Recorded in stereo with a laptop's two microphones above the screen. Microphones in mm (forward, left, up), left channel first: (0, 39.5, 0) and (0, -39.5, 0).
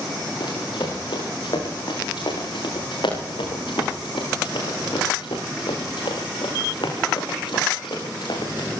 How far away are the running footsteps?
About 8 m.